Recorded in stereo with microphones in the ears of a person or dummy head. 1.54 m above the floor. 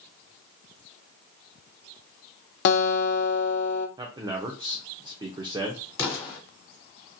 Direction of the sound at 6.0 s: 20° left (ahead or behind).